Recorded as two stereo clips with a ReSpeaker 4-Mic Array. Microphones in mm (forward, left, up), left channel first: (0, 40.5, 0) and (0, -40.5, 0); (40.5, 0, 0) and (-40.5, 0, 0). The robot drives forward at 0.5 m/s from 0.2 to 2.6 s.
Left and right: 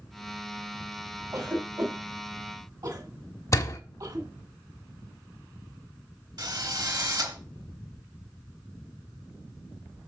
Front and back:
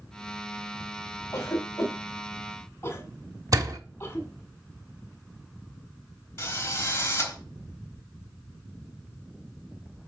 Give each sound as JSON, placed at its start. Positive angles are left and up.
{"t": 1.3, "sound": "a cough", "azimuth_deg": -45, "distance_m": 2.5}
{"t": 3.5, "sound": "a door slam", "azimuth_deg": 140, "distance_m": 1.1}
{"t": 6.4, "sound": "a drill", "azimuth_deg": -60, "distance_m": 3.5}